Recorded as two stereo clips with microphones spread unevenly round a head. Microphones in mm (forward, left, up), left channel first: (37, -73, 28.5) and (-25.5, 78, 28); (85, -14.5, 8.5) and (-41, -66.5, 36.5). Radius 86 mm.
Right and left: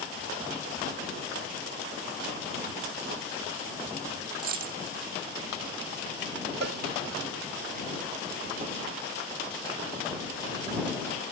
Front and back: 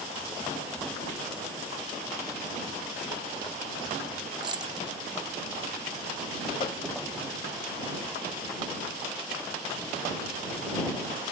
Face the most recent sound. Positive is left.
turn(degrees=90)